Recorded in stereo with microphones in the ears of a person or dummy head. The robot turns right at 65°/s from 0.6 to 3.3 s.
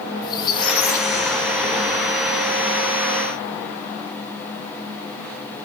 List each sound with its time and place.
0.2 s a squeak: 25° left, 1.7 m; by 2.2 s 130° left, 1.7 m